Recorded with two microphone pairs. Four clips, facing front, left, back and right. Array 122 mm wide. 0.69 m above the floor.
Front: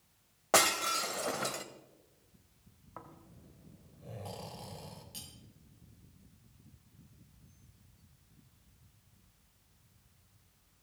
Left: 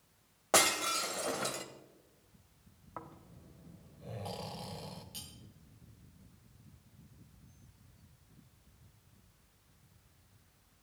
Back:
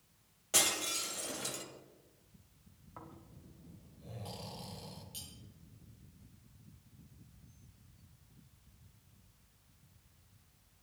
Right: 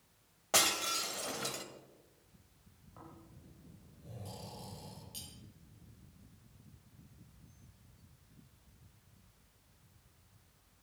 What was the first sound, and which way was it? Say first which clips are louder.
Breaking glass: left 4 dB, front 9 dB; 30° left.